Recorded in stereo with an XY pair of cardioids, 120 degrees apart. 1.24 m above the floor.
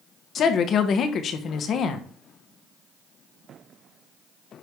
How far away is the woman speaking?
About 1.2 m.